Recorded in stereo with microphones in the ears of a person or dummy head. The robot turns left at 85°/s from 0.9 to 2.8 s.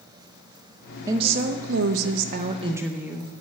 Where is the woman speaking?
20° right, 0.8 m; by 3.3 s 165° right, 0.8 m.